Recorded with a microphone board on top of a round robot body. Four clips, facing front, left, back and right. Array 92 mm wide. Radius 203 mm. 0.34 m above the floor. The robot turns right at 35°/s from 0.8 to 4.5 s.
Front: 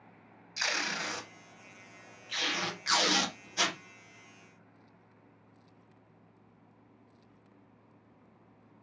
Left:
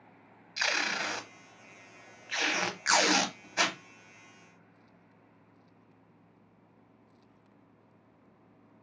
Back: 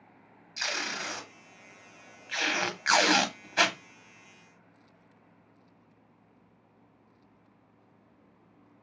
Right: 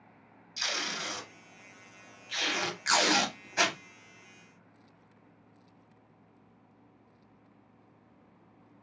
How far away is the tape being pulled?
About 1.2 m.